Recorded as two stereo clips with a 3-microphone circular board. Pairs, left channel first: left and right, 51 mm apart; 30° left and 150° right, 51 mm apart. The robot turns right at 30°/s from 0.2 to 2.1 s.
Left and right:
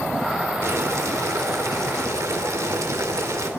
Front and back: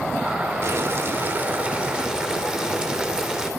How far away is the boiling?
About 3 m.